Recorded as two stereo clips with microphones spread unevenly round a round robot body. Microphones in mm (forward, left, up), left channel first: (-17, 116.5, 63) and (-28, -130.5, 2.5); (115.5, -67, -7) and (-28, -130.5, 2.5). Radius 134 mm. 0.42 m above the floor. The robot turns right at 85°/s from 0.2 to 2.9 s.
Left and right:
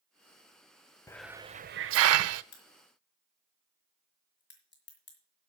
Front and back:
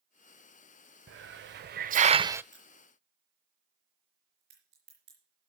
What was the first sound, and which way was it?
A hiss, 170° left.